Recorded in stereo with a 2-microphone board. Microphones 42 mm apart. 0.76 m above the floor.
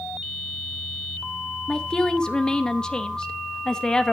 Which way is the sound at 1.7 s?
15° left (ahead or behind).